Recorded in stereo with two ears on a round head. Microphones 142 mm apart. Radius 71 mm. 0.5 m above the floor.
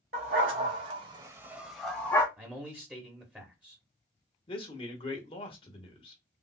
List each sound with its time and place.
0.1 s a dog barking: 65° right (ahead or behind), 1.3 m; by 2.3 s 20° left (ahead or behind), 1.3 m
2.4 s a man speaking: 10° right (ahead or behind), 1.0 m
4.5 s a man speaking: 35° left (ahead or behind), 1.0 m